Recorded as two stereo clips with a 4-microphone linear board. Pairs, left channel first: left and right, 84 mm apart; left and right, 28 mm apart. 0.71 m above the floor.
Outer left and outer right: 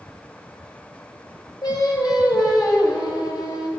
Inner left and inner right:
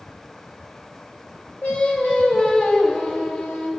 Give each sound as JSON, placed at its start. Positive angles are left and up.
{"t": 1.6, "sound": "singing", "side_deg": 55, "distance_m": 2.5}